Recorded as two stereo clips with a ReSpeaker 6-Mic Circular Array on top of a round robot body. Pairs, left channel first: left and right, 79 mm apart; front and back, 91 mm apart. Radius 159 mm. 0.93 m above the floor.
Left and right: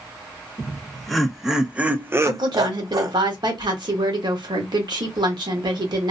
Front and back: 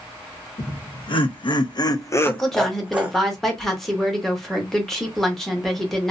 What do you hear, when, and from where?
0.6 s laughter: 10° left, 1.2 m; by 3.2 s 115° right, 0.7 m
2.2 s a woman speaking: 85° right, 1.1 m